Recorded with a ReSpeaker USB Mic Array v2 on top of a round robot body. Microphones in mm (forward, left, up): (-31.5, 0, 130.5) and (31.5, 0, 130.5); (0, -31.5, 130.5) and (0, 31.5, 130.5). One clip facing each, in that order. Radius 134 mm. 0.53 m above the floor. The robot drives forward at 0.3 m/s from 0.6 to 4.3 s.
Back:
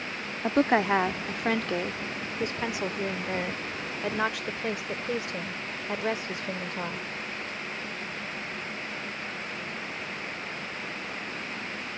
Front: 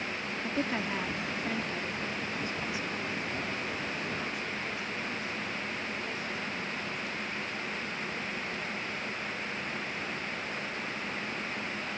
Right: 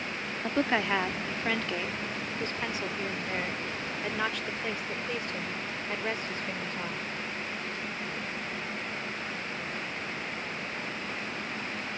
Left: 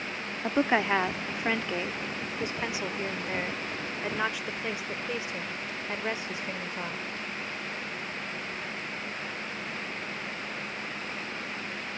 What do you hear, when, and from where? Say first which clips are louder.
0.4 s a woman speaking: back 11 dB, left 3 dB; 160° left; by 7.1 s 170° left